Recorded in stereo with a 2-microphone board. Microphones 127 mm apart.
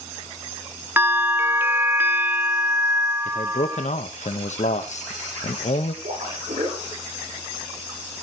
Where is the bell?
20° right (ahead or behind), 0.8 m.